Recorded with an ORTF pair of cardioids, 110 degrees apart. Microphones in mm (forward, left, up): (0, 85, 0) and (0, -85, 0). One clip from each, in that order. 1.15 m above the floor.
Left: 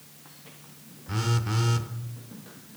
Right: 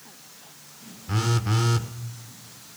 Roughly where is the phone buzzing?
Ahead.